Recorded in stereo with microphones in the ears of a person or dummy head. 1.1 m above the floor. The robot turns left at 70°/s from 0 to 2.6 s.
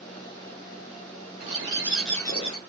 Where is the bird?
135° right, 1.0 m; by 2.6 s 140° left, 1.0 m.